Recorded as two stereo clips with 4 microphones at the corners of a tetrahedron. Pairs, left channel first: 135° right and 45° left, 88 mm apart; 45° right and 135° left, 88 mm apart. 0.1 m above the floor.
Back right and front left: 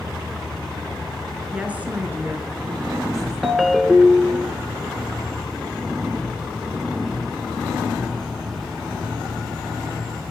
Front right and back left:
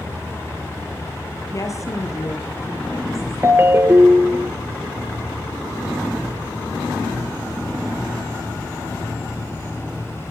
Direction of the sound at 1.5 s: 25° right.